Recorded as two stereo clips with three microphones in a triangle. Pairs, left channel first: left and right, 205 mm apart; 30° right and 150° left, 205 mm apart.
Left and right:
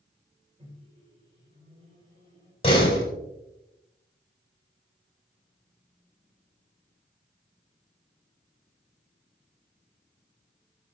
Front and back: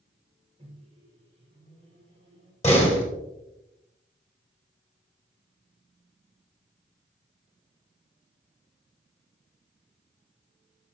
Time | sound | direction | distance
0.6 | a microwave | 150° right | 4.5 m
2.6 | a door slam | 25° left | 4.5 m